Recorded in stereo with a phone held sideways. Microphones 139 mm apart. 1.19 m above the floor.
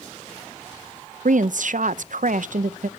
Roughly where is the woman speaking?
Right.